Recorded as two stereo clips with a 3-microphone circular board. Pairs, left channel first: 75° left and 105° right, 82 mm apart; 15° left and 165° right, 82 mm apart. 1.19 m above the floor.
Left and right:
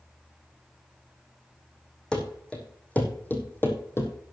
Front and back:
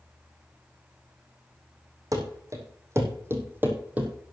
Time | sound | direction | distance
2.1 | running footsteps | 155° left | 2.5 m